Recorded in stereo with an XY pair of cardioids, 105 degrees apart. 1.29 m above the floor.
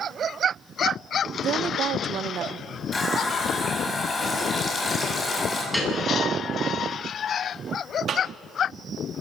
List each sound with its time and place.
1.4 s a woman speaking: 65° right, 1.0 m
2.9 s a running tap: 25° left, 6 m
5.7 s a piano: 5° left, 9.5 m
8.1 s a cough: 60° right, 3 m